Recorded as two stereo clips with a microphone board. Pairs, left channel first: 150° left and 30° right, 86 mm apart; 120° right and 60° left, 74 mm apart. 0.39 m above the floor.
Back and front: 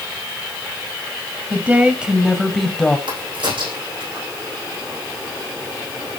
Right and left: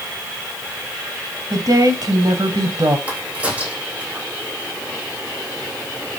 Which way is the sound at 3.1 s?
15° right.